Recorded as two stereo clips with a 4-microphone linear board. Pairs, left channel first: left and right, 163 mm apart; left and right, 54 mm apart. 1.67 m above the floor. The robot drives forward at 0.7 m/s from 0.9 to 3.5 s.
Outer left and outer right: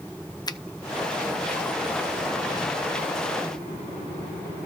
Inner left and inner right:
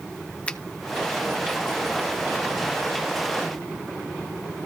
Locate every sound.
0.5 s a finger snap: 25° left (ahead or behind), 0.6 m